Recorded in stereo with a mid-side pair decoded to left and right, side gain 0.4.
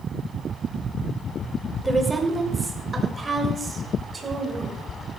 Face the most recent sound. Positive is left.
turn(degrees=-45)